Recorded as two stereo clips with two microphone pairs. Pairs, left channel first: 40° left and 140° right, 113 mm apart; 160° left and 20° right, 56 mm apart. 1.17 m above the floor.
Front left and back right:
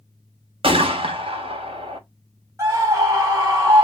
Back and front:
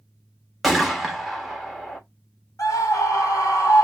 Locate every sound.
0.6 s a gunshot: 115° right, 1.0 m
2.6 s a scream: 155° left, 1.7 m